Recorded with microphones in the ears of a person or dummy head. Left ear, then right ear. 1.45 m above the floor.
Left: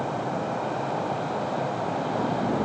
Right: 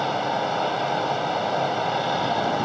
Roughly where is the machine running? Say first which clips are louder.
Right 5 dB; right.